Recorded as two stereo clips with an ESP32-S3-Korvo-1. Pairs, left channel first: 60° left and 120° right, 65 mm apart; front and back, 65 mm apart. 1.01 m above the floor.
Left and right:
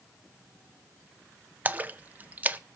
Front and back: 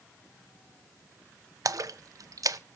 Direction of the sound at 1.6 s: Straight behind.